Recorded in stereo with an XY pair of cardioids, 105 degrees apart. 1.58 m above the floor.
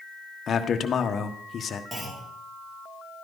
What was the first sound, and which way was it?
A man speaking, 45° left.